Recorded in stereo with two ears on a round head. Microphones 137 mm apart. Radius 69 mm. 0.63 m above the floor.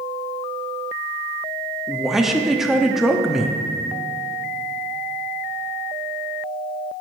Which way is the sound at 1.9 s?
5° right (ahead or behind).